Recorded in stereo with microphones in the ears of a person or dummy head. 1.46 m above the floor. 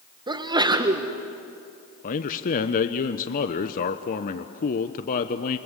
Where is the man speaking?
40° left (ahead or behind), 1.0 m.